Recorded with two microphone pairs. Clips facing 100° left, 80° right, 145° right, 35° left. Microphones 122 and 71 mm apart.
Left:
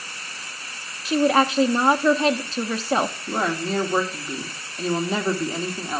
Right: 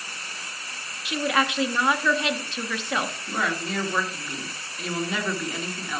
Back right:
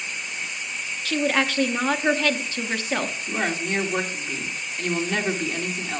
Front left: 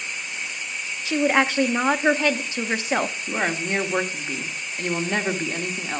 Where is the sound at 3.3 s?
85° left, 1.3 m.